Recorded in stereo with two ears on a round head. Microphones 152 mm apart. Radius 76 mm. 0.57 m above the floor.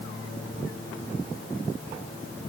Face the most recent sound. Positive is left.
No sound to turn to.